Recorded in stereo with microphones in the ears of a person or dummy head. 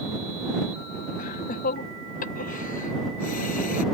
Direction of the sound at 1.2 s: 55° left (ahead or behind).